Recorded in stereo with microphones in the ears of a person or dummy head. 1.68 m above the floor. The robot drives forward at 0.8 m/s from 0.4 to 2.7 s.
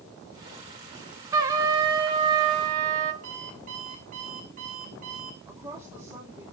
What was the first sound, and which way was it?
A trumpet, 25° right (ahead or behind).